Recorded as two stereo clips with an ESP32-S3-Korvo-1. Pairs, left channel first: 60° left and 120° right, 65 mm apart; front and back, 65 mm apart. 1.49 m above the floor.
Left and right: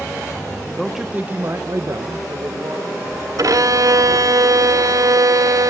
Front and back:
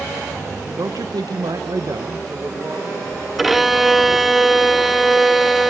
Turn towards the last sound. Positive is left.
turn(degrees=-90)